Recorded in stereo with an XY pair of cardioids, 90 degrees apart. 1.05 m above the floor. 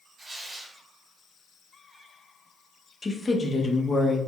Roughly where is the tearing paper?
Ahead right.